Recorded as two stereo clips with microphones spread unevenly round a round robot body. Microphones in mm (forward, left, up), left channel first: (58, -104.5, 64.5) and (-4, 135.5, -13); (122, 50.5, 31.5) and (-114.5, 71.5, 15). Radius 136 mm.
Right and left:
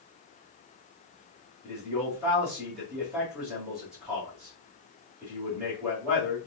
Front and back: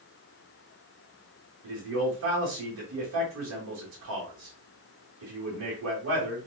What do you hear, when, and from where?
1.6 s a man speaking: 175° right, 1.8 m